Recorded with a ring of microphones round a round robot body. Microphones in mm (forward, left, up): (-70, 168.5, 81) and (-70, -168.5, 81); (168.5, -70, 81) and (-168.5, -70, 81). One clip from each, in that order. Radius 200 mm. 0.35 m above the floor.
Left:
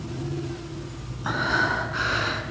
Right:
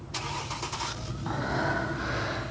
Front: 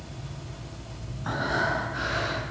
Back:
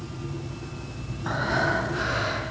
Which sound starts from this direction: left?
Breathing, at 1.2 s.